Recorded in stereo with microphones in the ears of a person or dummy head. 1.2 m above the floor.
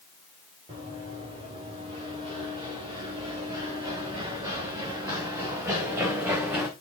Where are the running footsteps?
25° right (ahead or behind), 8.5 m; by 6.7 s 10° right (ahead or behind), 3.5 m.